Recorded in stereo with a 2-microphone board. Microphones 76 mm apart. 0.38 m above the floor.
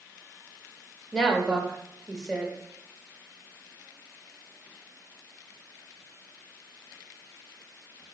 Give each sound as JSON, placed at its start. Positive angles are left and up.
{"t": 1.1, "sound": "a woman speaking", "side_deg": 10, "distance_m": 1.1}